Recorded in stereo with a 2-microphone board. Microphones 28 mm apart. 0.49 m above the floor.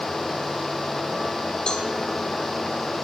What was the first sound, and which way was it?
A cowbell, 35° left (ahead or behind).